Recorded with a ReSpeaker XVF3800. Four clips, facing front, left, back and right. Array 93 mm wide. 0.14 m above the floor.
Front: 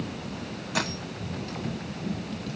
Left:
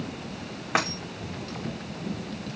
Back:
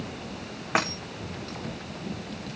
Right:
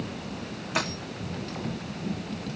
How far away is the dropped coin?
About 4.5 m.